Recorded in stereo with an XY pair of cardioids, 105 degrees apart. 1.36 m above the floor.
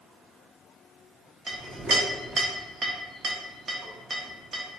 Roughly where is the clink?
Ahead right.